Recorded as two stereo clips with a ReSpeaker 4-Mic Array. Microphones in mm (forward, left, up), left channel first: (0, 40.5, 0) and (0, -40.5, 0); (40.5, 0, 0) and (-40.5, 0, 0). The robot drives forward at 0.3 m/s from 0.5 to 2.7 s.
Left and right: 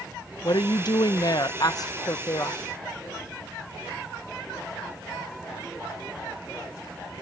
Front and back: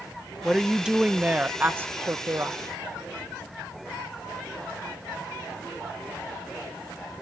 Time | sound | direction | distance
0.4 | a woman speaking | 95° left | ?